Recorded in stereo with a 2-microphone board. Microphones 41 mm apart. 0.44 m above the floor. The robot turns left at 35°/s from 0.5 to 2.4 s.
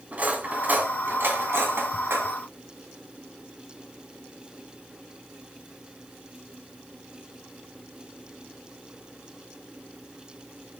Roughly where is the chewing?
No chewing in this recording.